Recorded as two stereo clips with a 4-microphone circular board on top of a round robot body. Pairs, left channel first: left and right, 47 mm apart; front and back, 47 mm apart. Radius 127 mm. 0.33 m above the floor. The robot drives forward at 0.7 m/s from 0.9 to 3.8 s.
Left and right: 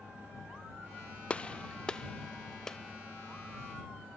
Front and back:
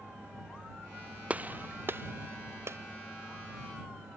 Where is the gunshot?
135° left; by 2.8 s 165° left.